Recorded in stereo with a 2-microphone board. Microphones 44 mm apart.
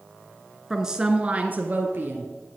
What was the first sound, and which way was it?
A woman speaking, 5° right (ahead or behind).